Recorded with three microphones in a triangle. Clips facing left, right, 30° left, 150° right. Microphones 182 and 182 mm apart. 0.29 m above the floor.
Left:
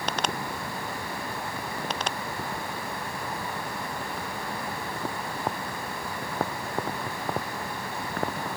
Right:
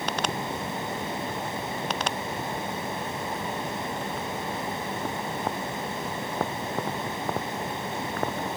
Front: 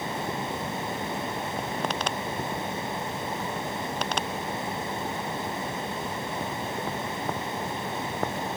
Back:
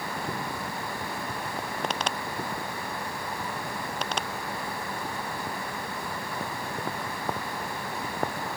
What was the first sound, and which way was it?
Only background noise.